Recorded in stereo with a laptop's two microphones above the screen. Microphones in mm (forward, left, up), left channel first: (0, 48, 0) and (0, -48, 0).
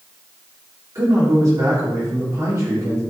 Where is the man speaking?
35° right (ahead or behind), 2.5 m.